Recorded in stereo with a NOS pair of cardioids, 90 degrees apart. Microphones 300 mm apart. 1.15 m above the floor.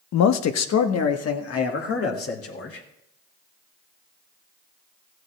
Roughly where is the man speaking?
Ahead left.